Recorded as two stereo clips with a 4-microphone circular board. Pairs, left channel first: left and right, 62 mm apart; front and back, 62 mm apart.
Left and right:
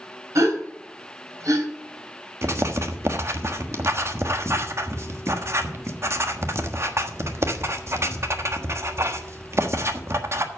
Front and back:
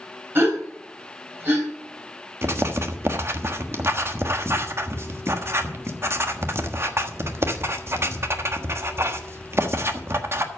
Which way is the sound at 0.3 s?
125° right.